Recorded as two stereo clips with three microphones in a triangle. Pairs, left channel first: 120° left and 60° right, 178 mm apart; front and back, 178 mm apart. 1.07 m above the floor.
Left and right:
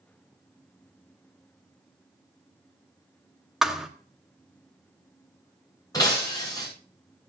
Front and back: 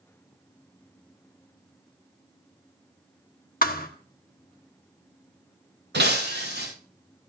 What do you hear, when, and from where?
3.6 s a thud: 30° left, 1.0 m
5.9 s breaking glass: 170° right, 9.5 m